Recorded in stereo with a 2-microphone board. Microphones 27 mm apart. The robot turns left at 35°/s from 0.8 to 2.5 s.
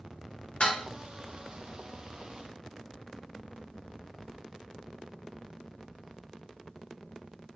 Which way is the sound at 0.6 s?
45° left (ahead or behind).